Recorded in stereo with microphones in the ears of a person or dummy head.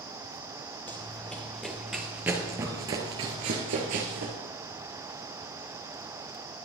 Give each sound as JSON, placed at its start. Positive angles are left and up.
{"t": 0.9, "sound": "running footsteps", "side_deg": 10, "distance_m": 2.0}